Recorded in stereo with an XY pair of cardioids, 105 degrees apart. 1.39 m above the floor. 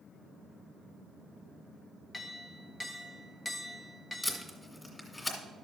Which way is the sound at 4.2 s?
15° left.